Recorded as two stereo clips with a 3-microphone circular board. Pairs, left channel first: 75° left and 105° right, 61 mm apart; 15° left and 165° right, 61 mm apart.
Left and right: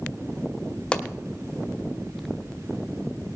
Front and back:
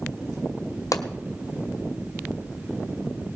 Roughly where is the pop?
Ahead.